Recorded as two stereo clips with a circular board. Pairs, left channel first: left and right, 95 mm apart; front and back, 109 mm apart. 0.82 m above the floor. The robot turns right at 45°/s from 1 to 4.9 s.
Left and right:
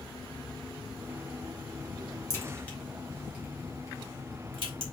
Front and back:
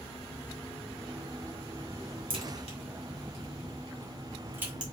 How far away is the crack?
About 2 m.